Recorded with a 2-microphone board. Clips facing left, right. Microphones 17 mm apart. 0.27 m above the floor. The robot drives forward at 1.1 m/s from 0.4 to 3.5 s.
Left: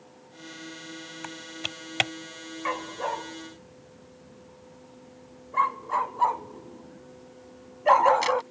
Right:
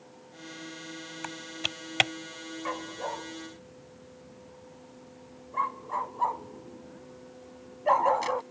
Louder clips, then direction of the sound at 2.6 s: Left 5 dB; 45° left (ahead or behind).